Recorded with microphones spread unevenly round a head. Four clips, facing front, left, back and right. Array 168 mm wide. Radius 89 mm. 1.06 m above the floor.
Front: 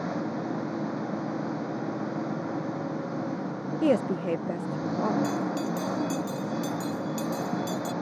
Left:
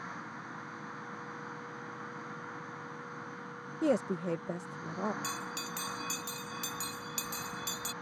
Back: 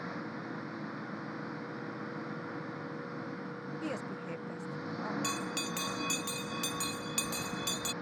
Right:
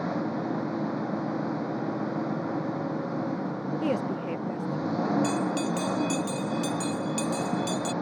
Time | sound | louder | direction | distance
0.0 | an engine running | right 15 dB, front 10 dB | 55° right | ?
3.8 | a woman speaking | even, front 17 dB | 5° left | ?
5.2 | a bell | right 14 dB, front 9 dB | straight behind | ?